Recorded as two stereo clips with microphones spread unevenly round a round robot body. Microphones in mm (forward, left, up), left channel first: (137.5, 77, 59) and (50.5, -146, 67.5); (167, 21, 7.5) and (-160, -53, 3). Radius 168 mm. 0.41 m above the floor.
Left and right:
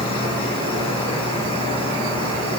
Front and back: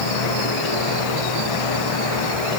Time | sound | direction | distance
0.0 | an insect | straight ahead | 7.5 m